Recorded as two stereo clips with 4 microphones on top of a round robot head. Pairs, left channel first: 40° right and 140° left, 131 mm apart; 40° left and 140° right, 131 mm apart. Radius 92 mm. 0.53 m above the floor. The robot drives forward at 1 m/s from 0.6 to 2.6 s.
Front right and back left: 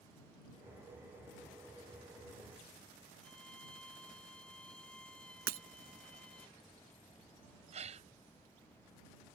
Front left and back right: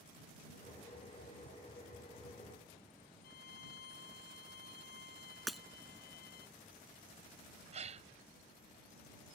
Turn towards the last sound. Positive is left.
turn(degrees=180)